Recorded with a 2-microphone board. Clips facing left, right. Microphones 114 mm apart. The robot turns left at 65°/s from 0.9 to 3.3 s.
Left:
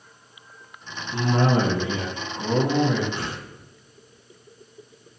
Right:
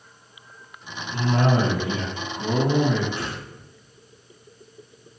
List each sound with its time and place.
1.1 s a cough: 20° left (ahead or behind), 1.8 m; by 3.0 s centre (ahead or behind), 1.8 m
3.1 s a whoosh: 25° left (ahead or behind), 1.2 m; by 3.4 s 20° left (ahead or behind), 1.2 m